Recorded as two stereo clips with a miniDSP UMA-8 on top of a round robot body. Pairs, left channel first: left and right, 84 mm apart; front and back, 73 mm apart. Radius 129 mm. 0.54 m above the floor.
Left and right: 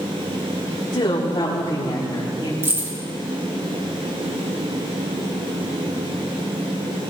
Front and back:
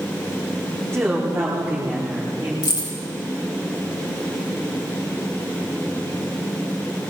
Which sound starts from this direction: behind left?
A woman speaking, at 0.9 s.